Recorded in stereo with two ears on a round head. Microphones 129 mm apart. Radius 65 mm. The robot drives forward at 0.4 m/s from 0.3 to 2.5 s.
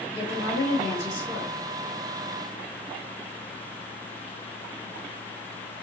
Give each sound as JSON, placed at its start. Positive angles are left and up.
{"t": 0.1, "sound": "a woman speaking", "side_deg": 45, "distance_m": 1.9}